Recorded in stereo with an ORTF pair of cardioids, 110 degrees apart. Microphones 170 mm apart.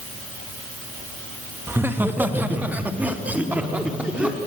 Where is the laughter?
15° right, 2.5 m; by 4.4 s 5° right, 4.5 m.